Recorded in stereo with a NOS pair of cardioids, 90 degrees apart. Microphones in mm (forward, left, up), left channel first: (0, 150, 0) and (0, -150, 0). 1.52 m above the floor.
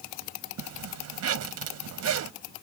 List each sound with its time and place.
0.6 s a zipper: 60° right